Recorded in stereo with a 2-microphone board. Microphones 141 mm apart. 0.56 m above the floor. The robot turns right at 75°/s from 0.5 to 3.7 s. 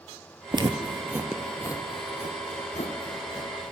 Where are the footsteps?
30° right (ahead or behind), 0.6 m; by 3.7 s 10° right (ahead or behind), 1.9 m.